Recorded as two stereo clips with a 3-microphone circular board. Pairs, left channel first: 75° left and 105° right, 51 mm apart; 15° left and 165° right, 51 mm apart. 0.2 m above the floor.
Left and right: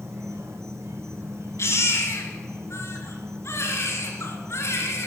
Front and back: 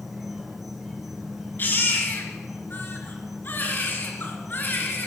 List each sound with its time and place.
0.0 s an insect: 80° right, 1.6 m
1.6 s a baby crying: 60° left, 2.5 m